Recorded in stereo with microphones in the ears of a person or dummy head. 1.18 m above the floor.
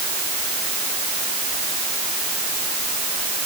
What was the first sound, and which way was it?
Only background noise.